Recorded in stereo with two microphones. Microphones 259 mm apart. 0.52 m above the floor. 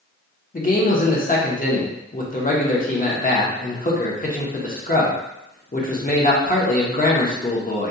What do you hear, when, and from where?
0.5 s a man speaking: 35° left (ahead or behind), 0.7 m